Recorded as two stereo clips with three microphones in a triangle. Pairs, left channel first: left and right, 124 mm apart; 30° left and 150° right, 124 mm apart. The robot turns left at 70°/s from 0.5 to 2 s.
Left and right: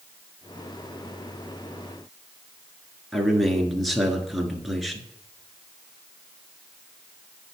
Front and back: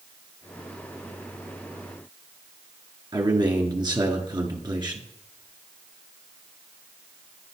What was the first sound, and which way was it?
A man speaking, straight behind.